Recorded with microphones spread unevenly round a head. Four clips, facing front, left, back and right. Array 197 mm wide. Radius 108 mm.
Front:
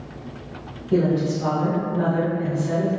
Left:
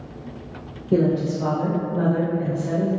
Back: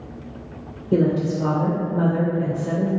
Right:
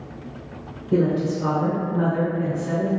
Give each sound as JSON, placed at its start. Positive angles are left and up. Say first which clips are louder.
{"t": 0.9, "sound": "a woman speaking", "louder": "left 1 dB, back 1 dB", "azimuth_deg": 115, "distance_m": 0.7}